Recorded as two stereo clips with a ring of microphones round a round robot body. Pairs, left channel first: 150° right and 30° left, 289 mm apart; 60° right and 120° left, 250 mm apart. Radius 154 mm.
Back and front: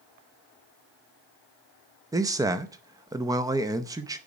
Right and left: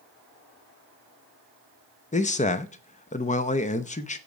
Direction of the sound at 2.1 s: 35° right.